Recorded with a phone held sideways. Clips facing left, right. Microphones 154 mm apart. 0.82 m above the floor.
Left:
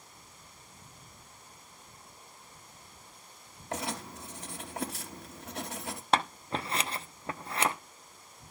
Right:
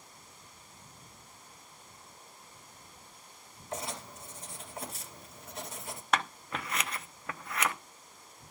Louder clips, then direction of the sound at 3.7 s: Left 3 dB; 70° left (ahead or behind).